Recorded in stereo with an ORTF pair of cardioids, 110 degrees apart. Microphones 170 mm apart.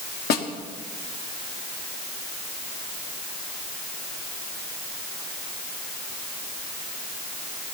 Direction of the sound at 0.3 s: 65° left.